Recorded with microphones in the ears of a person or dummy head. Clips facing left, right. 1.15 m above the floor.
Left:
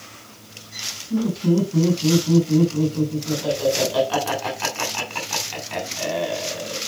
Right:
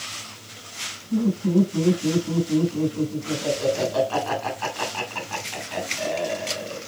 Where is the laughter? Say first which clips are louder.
Left 1 dB; 40° left (ahead or behind), 3.5 m.